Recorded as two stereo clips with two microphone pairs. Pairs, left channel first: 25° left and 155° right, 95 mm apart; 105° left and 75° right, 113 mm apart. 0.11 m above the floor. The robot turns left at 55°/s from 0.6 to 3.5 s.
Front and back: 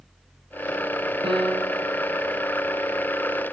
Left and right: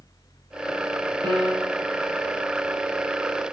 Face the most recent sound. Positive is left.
turn(degrees=115)